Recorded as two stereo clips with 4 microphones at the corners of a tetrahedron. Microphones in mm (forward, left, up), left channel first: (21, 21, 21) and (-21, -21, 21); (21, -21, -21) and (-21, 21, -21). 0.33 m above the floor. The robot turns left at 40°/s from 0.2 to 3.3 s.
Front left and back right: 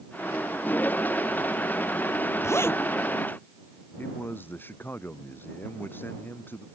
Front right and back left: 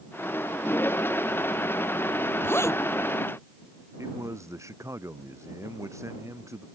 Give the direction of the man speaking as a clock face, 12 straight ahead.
9 o'clock.